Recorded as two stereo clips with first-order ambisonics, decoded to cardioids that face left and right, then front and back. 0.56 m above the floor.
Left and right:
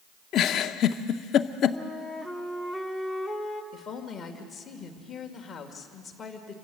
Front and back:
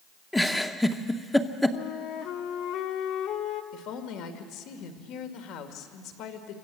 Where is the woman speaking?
25° left, 2 m.